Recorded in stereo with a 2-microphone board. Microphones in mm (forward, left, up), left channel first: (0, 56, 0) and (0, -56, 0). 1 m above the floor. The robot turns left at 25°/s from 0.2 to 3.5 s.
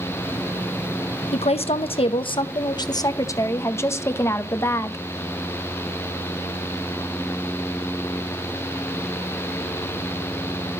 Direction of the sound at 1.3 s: 80° left.